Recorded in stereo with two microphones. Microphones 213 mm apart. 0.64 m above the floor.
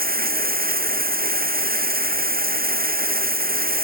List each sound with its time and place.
0.0 s running water: 45° right (ahead or behind)